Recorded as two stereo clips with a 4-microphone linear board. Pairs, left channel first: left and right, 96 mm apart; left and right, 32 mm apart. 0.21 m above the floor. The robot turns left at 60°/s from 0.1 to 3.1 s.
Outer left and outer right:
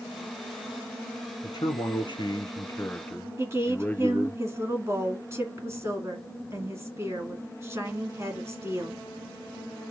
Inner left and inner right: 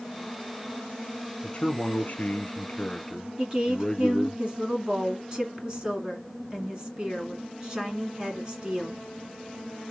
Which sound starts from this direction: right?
A woman speaking, at 3.4 s.